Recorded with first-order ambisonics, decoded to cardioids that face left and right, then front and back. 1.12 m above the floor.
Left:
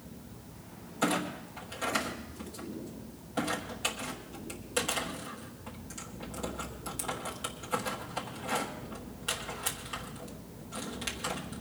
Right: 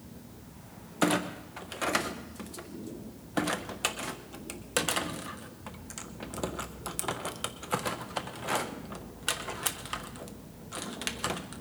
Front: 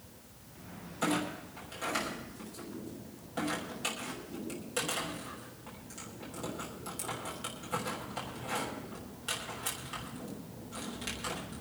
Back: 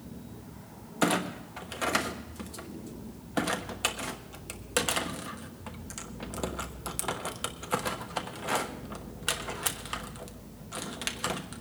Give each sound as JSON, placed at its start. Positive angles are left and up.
{"t": 1.0, "sound": "a clunk", "azimuth_deg": -140, "distance_m": 1.0}